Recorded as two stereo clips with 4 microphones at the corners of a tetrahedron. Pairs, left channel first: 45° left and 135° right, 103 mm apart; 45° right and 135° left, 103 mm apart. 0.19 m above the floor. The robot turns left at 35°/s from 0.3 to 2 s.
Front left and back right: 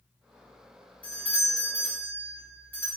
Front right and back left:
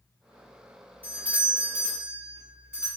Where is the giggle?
No giggle in this recording.